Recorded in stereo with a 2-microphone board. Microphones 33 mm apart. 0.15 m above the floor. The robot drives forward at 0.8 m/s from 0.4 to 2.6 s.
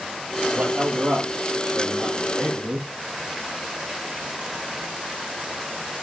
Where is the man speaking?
65° right (ahead or behind), 5 m; by 2.9 s 55° right (ahead or behind), 5.5 m.